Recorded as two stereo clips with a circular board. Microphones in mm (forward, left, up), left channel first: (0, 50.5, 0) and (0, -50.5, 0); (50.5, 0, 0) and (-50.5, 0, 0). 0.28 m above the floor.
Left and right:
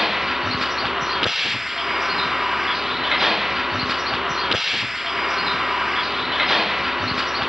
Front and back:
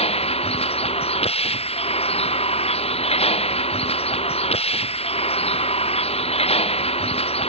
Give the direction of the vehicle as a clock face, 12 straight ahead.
12 o'clock.